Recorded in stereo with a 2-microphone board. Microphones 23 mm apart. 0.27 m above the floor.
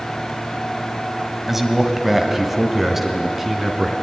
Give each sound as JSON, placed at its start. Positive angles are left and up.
{"t": 1.5, "sound": "a man speaking", "side_deg": -15, "distance_m": 2.0}